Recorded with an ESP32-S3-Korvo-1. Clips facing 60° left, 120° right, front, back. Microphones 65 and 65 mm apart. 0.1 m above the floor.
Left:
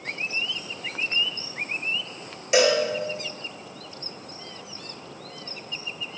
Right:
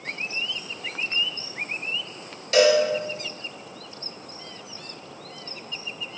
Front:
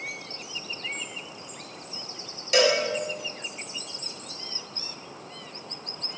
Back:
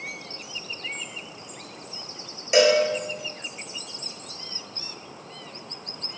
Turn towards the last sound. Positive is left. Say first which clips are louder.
# right 2 dB, back 4 dB
turn(degrees=125)